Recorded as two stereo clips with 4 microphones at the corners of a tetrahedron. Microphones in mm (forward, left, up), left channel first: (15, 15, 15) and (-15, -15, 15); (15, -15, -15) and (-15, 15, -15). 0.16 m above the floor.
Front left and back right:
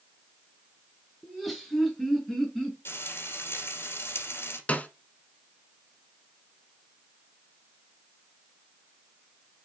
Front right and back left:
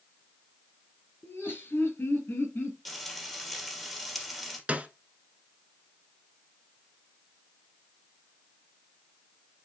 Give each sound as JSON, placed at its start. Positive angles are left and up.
{"t": 1.2, "sound": "laughter", "azimuth_deg": -40, "distance_m": 3.5}
{"t": 2.9, "sound": "frying", "azimuth_deg": 45, "distance_m": 2.0}
{"t": 4.7, "sound": "a snare drum", "azimuth_deg": 90, "distance_m": 0.9}